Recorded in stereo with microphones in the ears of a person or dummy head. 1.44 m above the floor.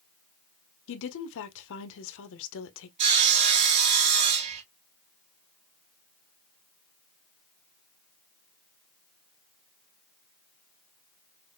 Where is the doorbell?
No doorbell in this recording.